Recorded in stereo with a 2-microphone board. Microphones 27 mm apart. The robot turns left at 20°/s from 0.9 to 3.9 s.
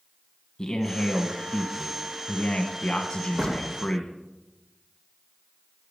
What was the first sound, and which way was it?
A man speaking, 105° left.